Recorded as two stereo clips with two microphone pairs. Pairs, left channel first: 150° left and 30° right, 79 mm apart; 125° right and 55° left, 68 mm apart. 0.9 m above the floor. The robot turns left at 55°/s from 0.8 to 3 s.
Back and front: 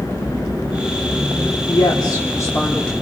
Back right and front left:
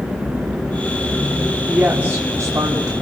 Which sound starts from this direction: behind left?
A woman speaking, at 1.7 s.